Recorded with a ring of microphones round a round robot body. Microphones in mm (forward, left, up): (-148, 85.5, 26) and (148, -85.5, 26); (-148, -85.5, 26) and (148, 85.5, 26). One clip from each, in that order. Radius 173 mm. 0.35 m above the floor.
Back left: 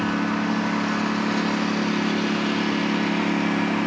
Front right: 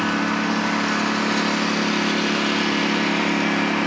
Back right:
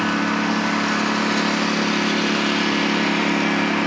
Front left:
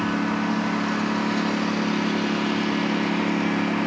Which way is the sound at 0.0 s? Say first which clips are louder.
Front right 3 dB, back right 4 dB; 90° right.